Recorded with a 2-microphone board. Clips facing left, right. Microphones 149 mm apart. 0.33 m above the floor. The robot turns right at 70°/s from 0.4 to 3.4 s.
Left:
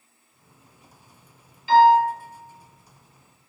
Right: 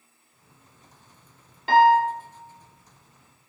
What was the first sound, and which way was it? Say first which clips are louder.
A piano: left 2 dB; 65° right (ahead or behind).